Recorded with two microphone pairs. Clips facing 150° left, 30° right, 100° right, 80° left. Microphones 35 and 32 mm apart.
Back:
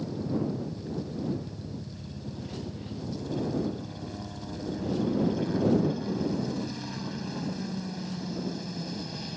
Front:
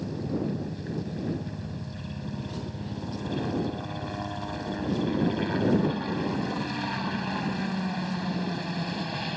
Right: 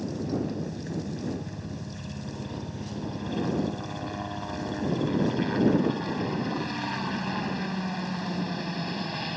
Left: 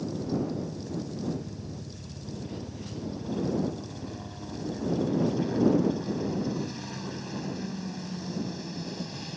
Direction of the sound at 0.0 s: 60° right.